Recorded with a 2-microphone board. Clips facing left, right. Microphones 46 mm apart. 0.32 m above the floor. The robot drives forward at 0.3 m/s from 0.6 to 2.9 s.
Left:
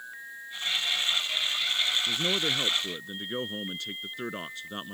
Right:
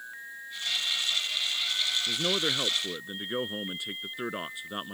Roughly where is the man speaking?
Centre.